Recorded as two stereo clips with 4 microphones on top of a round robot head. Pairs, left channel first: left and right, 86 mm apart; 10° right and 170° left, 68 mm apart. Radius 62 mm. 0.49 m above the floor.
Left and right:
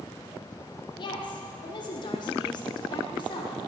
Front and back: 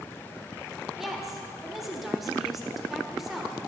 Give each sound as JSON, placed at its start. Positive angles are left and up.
{"t": 1.0, "sound": "a woman speaking", "azimuth_deg": 80, "distance_m": 1.7}